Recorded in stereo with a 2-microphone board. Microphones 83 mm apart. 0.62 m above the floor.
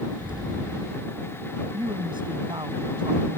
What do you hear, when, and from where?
0.2 s an explosion: 75° right (ahead or behind)
1.7 s a woman speaking: 75° right (ahead or behind)